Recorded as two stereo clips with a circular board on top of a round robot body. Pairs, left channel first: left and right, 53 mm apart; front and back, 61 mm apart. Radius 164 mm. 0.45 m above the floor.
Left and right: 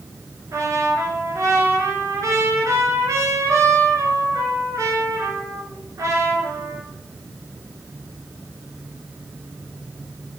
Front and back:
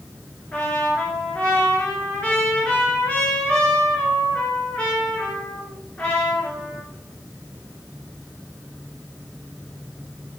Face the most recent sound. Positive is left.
turn(degrees=-70)